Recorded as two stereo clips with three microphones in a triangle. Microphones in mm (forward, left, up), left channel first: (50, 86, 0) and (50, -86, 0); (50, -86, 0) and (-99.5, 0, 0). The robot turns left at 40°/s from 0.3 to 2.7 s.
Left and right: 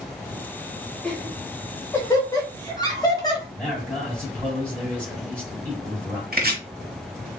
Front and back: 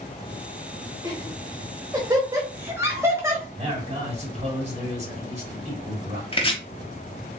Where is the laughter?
165° left, 1.1 m; by 3.5 s 100° left, 1.1 m.